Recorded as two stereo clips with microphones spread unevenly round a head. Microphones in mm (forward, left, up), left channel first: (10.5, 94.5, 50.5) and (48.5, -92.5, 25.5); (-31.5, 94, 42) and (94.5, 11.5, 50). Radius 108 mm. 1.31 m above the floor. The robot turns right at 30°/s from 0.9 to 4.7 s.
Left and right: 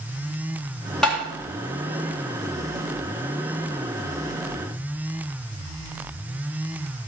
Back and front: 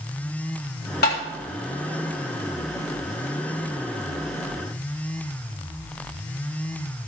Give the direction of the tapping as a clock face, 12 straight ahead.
6 o'clock.